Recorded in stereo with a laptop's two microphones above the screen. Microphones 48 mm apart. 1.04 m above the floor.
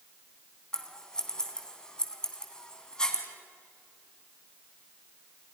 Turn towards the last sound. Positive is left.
turn(degrees=15)  # may be behind; listen again after turning